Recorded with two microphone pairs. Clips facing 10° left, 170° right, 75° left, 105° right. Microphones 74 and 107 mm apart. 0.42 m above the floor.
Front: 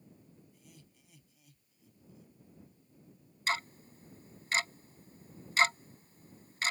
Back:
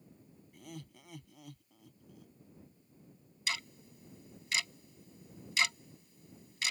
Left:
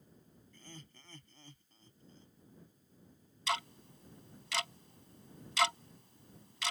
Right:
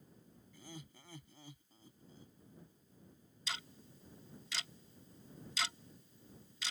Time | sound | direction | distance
0.5 | laughter | 175° left | ?
3.5 | ticking | 55° left | ?